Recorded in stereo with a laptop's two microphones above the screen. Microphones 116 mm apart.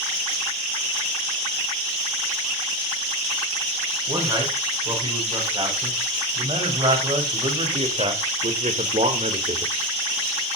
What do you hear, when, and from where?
4.1 s a man speaking: 35° right (ahead or behind), 8 m; by 9.7 s 70° right (ahead or behind), 2.5 m